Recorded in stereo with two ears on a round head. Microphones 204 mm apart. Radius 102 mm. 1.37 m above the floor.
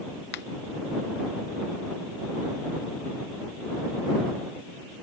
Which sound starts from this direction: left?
A finger snap, at 0.3 s.